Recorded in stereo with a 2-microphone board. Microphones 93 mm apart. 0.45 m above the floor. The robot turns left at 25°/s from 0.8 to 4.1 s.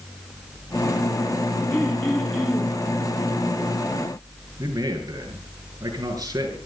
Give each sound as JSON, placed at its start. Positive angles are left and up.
{"t": 1.7, "sound": "throat clearing", "side_deg": 25, "distance_m": 6.0}
{"t": 4.6, "sound": "a man speaking", "side_deg": -40, "distance_m": 6.0}